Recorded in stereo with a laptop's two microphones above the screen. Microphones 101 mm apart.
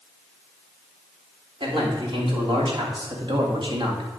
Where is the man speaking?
55° right (ahead or behind), 3.5 m; by 4.1 s 45° right (ahead or behind), 1.8 m.